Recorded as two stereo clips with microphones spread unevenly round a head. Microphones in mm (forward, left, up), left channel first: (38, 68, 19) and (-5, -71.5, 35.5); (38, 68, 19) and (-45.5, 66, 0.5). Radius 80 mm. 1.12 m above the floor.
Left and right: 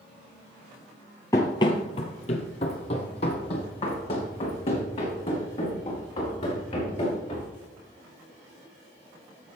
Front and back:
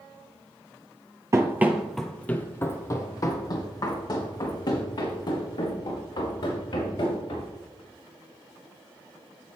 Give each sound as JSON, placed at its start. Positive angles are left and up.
{"t": 1.3, "sound": "running footsteps", "azimuth_deg": 140, "distance_m": 1.2}